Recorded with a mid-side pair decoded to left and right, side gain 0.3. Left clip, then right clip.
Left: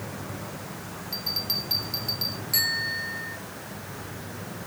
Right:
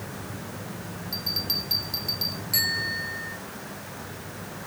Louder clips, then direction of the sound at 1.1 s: Right 1 dB; 10° right.